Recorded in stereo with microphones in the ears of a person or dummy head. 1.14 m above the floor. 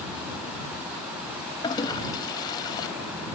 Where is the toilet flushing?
30° left (ahead or behind).